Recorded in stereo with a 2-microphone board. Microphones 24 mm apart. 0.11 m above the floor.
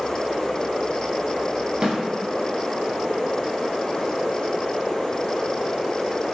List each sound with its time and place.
1.8 s a snare drum: 30° right (ahead or behind), 1.1 m